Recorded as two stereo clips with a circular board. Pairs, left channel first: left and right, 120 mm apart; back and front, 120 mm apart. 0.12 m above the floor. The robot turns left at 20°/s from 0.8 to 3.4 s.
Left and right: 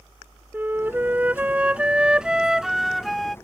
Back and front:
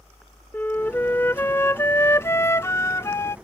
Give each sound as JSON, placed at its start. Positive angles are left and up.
{"t": 0.5, "sound": "a flute", "azimuth_deg": -135}